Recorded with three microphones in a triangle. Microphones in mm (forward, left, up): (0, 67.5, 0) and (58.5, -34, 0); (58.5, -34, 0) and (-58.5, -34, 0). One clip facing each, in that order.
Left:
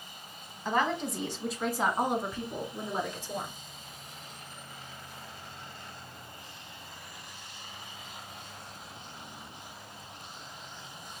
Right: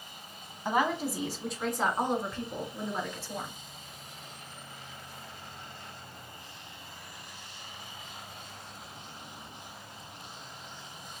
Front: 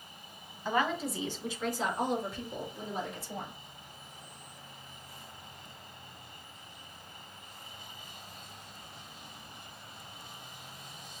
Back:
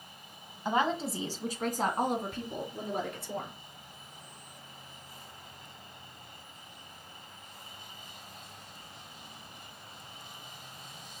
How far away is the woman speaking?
About 1.2 m.